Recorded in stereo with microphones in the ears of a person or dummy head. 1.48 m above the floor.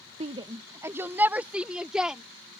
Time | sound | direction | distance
0.2 | a shout | 30° right (ahead or behind) | ?